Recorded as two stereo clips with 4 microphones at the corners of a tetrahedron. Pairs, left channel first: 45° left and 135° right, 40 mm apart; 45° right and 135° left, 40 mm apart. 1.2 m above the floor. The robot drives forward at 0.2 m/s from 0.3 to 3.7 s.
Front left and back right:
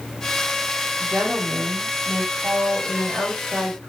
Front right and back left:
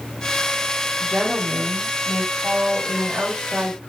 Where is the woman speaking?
155° right, 1.8 m; by 3.9 s 160° right, 2.5 m.